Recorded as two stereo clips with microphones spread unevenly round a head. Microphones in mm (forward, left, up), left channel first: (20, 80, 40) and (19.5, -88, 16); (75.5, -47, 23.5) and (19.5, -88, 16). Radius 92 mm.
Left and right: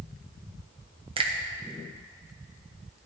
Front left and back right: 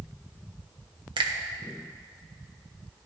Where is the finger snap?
155° right, 0.9 m.